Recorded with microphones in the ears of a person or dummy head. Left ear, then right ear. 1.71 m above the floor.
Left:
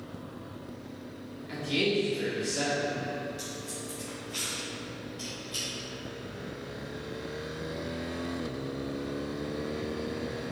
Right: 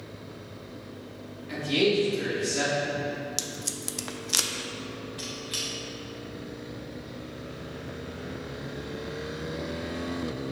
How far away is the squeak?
About 0.7 m.